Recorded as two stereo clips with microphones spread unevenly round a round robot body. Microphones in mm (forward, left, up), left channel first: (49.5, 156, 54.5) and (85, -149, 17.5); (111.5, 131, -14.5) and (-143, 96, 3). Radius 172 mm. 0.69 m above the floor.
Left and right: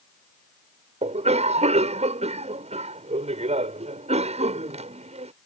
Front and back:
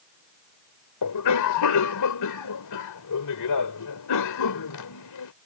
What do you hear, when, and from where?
1.0 s a cough: 15° right